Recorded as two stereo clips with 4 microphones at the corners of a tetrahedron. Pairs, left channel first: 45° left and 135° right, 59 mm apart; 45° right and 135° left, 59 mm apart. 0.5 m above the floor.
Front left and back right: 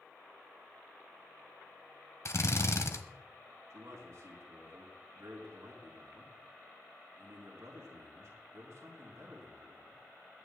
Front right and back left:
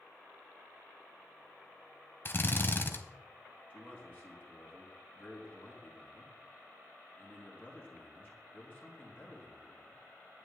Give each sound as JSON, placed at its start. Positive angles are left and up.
{"t": 2.2, "sound": "a drill", "azimuth_deg": 5, "distance_m": 1.2}
{"t": 3.7, "sound": "a man speaking", "azimuth_deg": -100, "distance_m": 5.5}